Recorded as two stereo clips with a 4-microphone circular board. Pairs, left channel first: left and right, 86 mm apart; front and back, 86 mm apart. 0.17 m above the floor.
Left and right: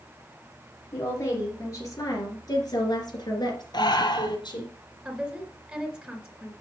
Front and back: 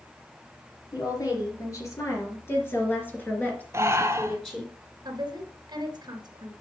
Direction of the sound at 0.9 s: 35° left.